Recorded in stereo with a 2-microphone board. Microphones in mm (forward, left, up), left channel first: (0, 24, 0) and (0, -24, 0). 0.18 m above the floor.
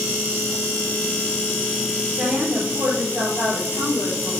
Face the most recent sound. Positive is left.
turn(degrees=-20)  # may be behind; listen again after turning